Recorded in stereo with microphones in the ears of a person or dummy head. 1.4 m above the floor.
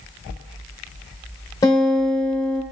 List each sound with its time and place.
1.6 s a guitar: 20° left (ahead or behind), 2.5 m